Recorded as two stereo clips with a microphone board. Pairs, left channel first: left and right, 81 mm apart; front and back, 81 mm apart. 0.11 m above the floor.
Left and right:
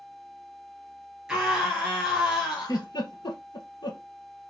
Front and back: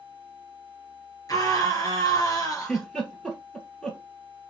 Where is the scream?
5° right, 2.5 m.